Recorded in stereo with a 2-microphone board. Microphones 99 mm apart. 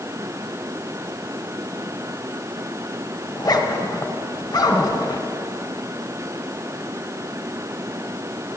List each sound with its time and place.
3.3 s a zipper: 40° left (ahead or behind), 1.9 m